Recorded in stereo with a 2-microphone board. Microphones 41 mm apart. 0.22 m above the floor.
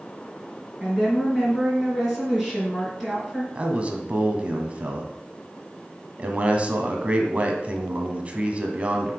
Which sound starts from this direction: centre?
A woman speaking, at 0.8 s.